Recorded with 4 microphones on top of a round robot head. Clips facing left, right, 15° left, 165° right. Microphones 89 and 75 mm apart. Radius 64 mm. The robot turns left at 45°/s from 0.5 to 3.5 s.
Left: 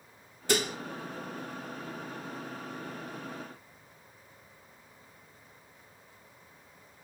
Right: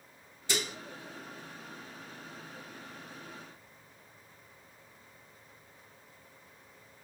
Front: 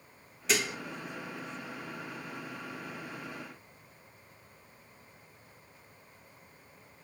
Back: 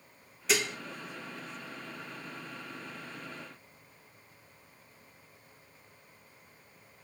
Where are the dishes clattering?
105° left, 0.6 m; by 0.8 s 90° left, 0.6 m.